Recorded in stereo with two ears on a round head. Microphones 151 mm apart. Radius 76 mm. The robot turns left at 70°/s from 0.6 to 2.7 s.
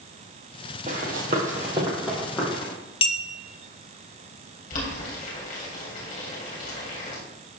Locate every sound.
0.9 s running footsteps: 45° right (ahead or behind), 2 m; by 2.7 s 40° left (ahead or behind), 3 m
3.0 s a clink: 35° left (ahead or behind), 1.0 m
4.7 s boiling: 55° left (ahead or behind), 3.5 m